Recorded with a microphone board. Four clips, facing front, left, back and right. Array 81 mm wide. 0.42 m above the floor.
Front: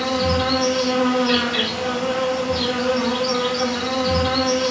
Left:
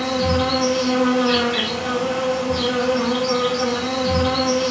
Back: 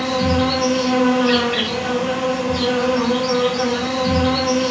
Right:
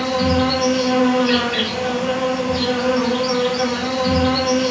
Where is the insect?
160° right, 1.6 m.